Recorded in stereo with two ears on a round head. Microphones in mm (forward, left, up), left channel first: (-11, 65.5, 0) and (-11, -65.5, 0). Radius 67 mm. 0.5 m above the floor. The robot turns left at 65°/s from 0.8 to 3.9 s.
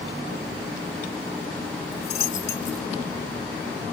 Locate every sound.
1.9 s a dropped coin: 55° left (ahead or behind); by 2.9 s 5° right (ahead or behind)